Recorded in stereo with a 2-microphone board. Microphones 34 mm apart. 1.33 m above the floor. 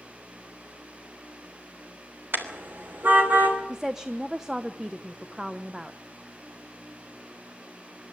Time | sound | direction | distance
2.3 | a car horn | 70° right (ahead or behind) | 3 m
3.7 | a woman speaking | 15° right (ahead or behind) | 0.9 m